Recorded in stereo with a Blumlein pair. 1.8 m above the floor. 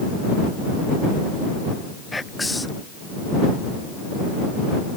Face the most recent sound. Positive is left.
turn(degrees=5)